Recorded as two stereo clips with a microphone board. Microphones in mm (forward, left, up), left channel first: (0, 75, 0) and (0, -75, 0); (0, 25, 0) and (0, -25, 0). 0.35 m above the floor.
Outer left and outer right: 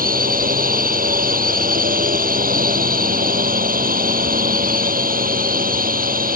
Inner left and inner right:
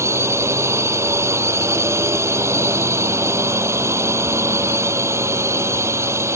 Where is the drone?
75° right (ahead or behind).